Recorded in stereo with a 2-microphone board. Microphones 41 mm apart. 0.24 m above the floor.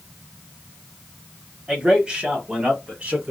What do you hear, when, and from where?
1.7 s a man speaking: 20° right (ahead or behind), 1.0 m; by 3.3 s 35° right (ahead or behind), 1.5 m